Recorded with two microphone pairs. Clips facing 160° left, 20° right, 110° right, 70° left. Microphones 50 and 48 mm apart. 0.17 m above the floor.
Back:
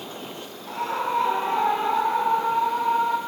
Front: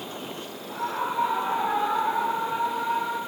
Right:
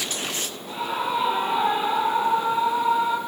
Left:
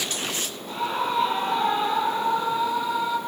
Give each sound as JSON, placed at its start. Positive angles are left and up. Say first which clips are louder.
{"t": 0.7, "sound": "a scream", "louder": "back 3 dB, even", "azimuth_deg": 165, "distance_m": 4.0}